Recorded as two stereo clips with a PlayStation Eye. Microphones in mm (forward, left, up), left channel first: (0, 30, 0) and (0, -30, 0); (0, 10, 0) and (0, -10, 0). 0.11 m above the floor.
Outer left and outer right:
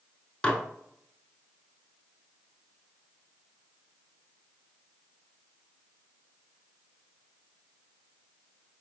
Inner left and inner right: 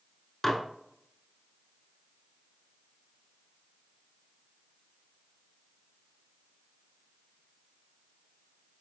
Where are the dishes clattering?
25° left (ahead or behind), 0.8 m.